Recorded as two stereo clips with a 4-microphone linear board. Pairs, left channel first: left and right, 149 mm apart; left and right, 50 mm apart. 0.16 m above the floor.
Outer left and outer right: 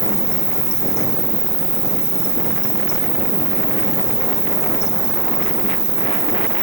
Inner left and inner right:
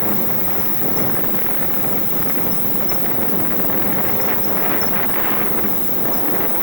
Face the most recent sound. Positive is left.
turn(degrees=80)